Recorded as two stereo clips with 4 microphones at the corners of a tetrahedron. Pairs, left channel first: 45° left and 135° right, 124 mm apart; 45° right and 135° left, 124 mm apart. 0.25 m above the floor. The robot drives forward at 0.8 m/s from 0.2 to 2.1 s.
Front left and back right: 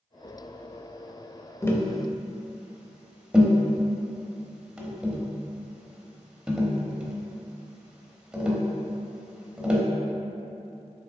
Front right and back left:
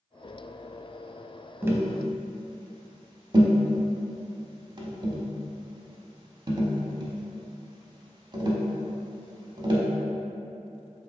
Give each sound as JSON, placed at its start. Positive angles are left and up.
{"t": 1.6, "sound": "tapping", "azimuth_deg": 85, "distance_m": 0.5}